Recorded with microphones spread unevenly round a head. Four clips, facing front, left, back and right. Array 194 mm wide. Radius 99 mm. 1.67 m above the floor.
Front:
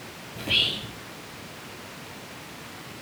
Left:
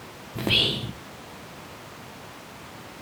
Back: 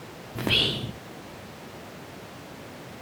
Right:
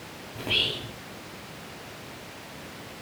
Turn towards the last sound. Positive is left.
turn(degrees=120)